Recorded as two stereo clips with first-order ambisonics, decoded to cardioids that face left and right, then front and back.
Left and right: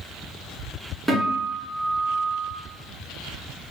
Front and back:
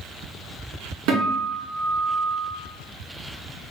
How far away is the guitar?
About 1.5 m.